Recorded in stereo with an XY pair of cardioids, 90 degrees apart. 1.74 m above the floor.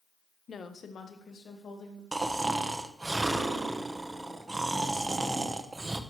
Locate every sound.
0.5 s a woman speaking: 45° left, 1.0 m; by 2.0 s 60° left, 3.5 m
2.1 s snoring: 20° right, 1.1 m